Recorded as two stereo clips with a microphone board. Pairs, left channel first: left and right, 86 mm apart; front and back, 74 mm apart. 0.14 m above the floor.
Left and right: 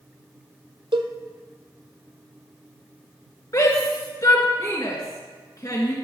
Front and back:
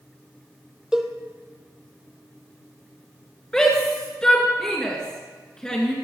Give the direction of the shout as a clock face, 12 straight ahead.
9 o'clock.